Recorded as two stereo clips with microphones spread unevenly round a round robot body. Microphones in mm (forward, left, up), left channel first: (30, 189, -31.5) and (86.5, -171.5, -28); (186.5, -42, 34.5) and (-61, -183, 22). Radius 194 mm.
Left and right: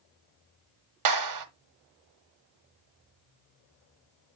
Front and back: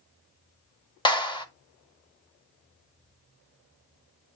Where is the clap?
45° right, 1.6 m.